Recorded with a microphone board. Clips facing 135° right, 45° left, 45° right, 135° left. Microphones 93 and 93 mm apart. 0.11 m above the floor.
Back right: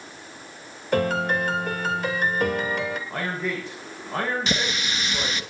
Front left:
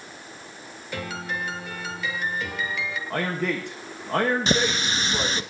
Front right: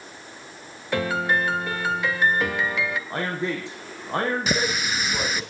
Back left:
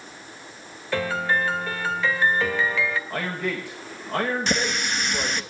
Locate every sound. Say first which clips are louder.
0.9 s a piano: back right 10 dB, front right 1 dB; 115° right, 1.6 m
3.1 s a man speaking: front left 2 dB, front right 1 dB; 20° left, 5.5 m
4.5 s a running tap: front left 3 dB, front right 1 dB; 35° left, 0.9 m